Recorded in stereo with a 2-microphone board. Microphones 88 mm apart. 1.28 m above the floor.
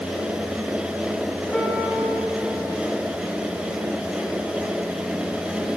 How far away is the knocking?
No knocking in this recording.